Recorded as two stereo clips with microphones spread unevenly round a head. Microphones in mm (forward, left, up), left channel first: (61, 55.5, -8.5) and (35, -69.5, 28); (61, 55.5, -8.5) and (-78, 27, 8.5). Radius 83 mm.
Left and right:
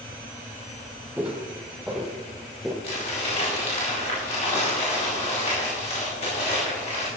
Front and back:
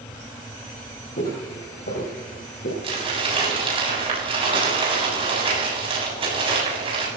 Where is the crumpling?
140° left, 7 m.